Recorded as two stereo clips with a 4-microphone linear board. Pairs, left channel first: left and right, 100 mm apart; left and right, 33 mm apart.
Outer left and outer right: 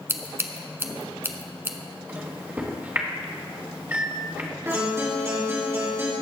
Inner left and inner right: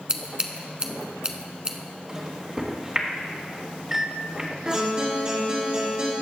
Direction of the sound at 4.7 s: 25° right (ahead or behind).